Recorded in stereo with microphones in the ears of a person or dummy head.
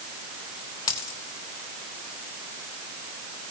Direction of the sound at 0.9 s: 20° left (ahead or behind).